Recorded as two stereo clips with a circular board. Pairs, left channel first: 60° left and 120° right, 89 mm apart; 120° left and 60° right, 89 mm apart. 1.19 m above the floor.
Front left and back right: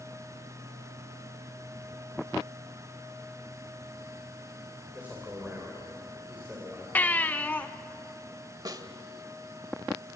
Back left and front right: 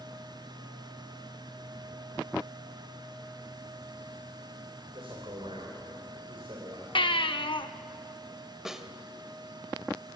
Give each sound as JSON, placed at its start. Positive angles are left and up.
{"t": 4.9, "sound": "a man speaking", "azimuth_deg": -50, "distance_m": 4.0}
{"t": 7.0, "sound": "a baby crying", "azimuth_deg": 130, "distance_m": 0.9}
{"t": 8.7, "sound": "a snare drum", "azimuth_deg": -140, "distance_m": 1.3}